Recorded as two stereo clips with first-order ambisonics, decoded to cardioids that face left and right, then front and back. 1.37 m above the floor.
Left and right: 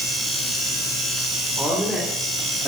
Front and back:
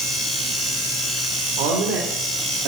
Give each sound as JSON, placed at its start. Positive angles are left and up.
{"t": 1.6, "sound": "a woman speaking", "azimuth_deg": 180, "distance_m": 4.0}